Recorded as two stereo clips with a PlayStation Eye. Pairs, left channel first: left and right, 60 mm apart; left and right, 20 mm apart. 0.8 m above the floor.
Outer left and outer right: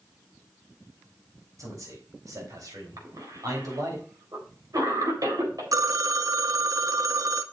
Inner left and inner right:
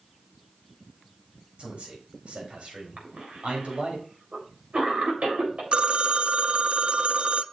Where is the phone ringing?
60° right (ahead or behind), 0.5 m.